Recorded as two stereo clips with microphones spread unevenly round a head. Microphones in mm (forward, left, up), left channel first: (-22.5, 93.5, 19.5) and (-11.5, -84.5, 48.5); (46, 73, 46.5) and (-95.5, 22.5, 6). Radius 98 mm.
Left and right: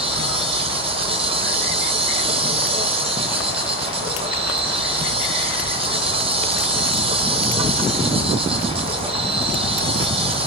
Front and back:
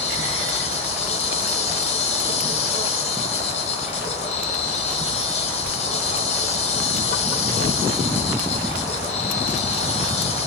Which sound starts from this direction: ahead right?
An insect, at 0.0 s.